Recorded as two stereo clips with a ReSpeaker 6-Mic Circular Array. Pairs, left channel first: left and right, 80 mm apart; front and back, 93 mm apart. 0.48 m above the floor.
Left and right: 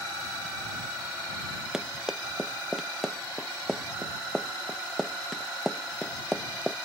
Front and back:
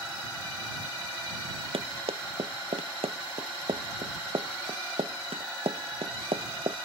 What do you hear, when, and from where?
1.7 s running footsteps: 175° right; by 6.8 s 175° left